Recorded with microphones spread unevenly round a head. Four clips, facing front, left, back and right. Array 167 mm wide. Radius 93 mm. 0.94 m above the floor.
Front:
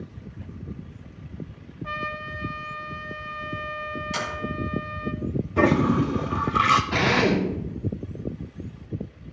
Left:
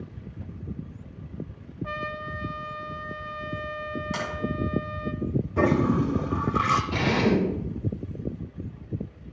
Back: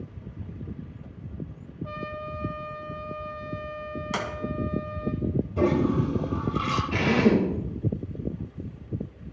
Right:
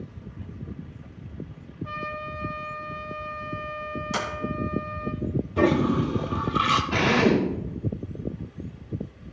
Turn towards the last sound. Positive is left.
turn(degrees=-35)